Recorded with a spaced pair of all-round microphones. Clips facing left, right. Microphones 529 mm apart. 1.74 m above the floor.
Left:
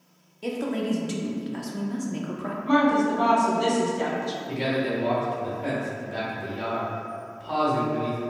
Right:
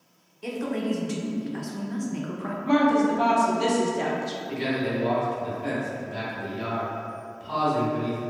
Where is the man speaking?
70° left (ahead or behind), 0.9 m.